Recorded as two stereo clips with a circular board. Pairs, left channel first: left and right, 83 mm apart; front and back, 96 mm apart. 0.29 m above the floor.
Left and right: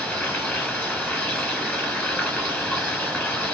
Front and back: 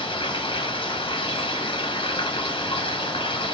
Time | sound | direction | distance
0.0 | running water | 20° left | 1.5 m